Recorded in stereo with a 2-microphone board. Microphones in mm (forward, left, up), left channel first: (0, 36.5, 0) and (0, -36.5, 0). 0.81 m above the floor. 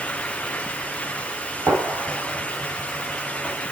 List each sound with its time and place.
1.7 s a gunshot: 25° right (ahead or behind), 8 m